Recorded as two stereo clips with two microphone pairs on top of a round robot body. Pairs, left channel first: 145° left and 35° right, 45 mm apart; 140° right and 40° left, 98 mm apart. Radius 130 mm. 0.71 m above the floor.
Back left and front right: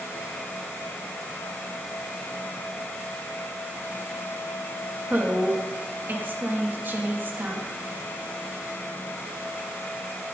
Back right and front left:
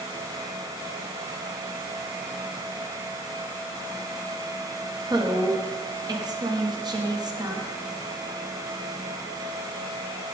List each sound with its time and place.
5.1 s a woman speaking: 10° left, 1.7 m